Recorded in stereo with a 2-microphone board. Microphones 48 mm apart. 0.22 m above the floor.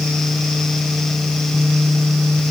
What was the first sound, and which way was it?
Only background noise.